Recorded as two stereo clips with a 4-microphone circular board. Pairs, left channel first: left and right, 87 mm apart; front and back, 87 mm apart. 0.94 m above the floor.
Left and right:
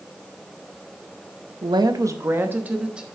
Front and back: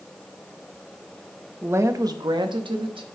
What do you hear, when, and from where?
1.6 s a woman speaking: 115° right, 0.7 m; by 3.0 s 170° right, 1.3 m